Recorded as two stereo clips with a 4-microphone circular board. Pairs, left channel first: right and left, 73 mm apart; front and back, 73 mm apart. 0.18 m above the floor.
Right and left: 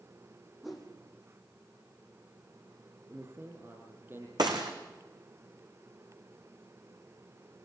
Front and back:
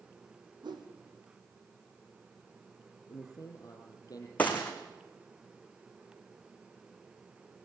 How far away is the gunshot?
About 3.5 m.